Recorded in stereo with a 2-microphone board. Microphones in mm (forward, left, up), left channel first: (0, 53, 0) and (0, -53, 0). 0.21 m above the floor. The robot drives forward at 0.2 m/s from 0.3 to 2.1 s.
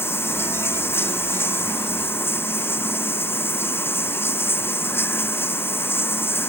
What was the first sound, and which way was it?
Running water, 20° left (ahead or behind).